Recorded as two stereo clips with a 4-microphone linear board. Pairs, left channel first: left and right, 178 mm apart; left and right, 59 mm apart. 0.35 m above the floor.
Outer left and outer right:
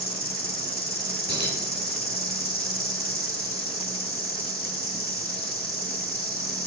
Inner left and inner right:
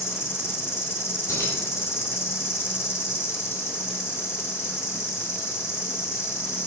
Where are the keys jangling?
70° left (ahead or behind), 2.5 m.